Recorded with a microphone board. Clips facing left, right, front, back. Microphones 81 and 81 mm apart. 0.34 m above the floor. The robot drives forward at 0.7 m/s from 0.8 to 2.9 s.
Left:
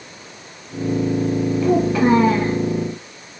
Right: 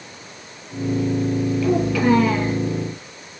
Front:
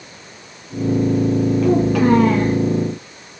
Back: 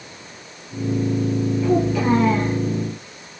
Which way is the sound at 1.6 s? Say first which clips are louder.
Left 3 dB, front 3 dB; 35° left.